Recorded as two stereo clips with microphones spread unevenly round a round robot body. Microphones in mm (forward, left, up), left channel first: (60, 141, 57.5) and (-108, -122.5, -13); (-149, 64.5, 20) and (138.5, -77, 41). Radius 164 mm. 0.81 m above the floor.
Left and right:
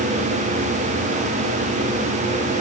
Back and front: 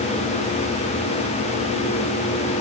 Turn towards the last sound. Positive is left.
No sound to turn to.